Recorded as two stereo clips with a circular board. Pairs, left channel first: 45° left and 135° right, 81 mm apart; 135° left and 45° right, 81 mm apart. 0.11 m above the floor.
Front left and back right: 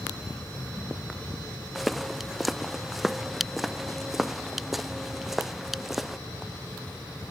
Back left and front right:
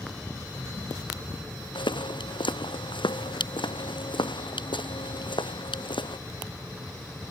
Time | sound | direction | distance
1.8 | footsteps | 135° left | ?